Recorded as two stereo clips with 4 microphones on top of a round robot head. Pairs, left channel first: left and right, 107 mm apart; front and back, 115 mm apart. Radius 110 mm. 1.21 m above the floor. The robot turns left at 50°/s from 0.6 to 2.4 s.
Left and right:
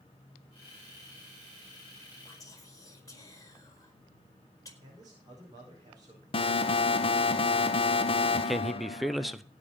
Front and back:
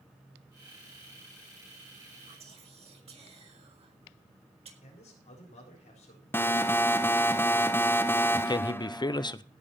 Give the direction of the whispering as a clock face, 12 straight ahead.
7 o'clock.